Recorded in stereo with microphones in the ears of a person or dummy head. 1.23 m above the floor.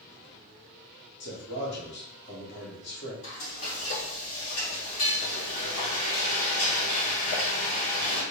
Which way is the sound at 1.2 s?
55° left (ahead or behind).